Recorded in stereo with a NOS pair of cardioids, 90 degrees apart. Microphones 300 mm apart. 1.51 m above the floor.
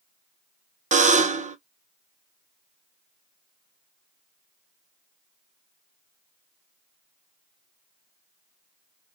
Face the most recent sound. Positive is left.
turn(degrees=-25)